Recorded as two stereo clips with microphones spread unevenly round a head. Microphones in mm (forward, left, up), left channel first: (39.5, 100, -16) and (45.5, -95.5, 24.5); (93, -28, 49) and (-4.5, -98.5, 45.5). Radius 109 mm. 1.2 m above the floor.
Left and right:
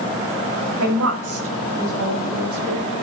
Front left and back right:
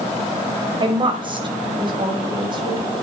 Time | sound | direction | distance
0.8 | a woman speaking | 95° right | 5.5 m